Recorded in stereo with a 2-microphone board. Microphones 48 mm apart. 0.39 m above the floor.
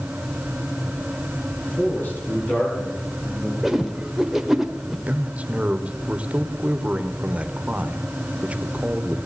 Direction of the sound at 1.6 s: 35° left (ahead or behind).